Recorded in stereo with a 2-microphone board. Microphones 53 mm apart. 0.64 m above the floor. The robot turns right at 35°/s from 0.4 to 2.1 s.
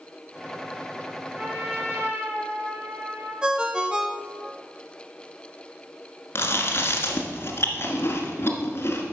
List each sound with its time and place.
1.4 s a trumpet: 20° right (ahead or behind), 4.5 m; by 3.3 s 45° right (ahead or behind), 4.5 m
3.4 s a ringtone: 15° right (ahead or behind), 0.7 m
6.3 s chewing: 45° left (ahead or behind), 1.3 m